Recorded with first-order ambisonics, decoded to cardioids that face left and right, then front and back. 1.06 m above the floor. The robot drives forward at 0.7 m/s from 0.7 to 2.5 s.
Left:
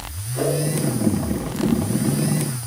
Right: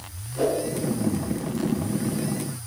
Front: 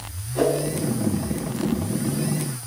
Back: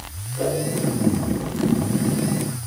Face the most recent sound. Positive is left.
turn(degrees=45)